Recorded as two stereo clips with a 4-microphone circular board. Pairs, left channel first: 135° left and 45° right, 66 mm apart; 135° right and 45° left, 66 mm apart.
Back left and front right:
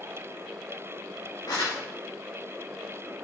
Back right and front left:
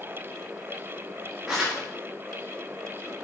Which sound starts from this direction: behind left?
Crumpling, at 1.5 s.